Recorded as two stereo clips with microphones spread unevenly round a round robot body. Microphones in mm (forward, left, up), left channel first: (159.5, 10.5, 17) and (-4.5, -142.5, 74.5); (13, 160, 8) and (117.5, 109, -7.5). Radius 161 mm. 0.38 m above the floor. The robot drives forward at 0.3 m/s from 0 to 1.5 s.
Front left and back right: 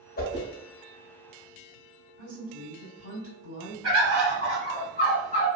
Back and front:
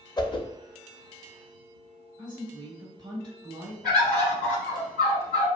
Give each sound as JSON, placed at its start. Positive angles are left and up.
{"t": 0.2, "sound": "a whoosh", "azimuth_deg": 90, "distance_m": 0.5}
{"t": 2.2, "sound": "a woman speaking", "azimuth_deg": -150, "distance_m": 1.9}
{"t": 3.8, "sound": "a bird", "azimuth_deg": -160, "distance_m": 1.4}